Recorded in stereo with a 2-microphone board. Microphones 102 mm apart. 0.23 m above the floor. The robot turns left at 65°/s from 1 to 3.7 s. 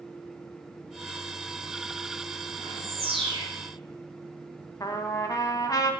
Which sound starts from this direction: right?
A bird, at 2.6 s.